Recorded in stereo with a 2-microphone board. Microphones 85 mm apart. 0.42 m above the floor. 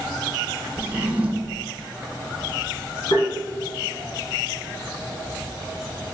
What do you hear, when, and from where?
0.8 s a drawer: 20° right (ahead or behind), 0.8 m
3.1 s tapping: 80° left, 1.7 m